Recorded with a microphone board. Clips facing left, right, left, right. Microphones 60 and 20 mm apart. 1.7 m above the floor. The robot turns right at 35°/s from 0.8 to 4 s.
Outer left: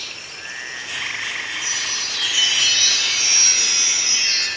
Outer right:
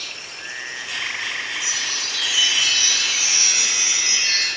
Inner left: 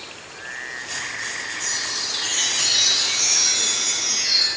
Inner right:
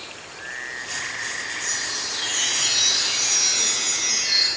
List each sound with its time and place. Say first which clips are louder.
1.6 s a chime: even, inner left 3 dB; 60° left, 3 m; by 4.5 s 145° left, 3 m